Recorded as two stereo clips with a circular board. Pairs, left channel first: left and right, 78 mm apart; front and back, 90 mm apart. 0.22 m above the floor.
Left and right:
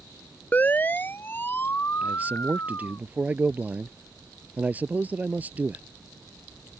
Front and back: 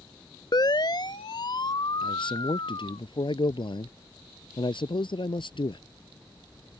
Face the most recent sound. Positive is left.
turn(degrees=-20)